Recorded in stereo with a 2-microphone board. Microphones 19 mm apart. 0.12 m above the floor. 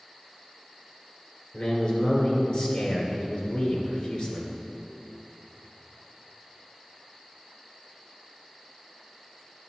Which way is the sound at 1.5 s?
45° left (ahead or behind).